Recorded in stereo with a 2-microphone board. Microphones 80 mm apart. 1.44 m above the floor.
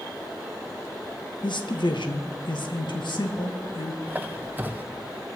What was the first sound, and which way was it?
A man speaking, 80° left.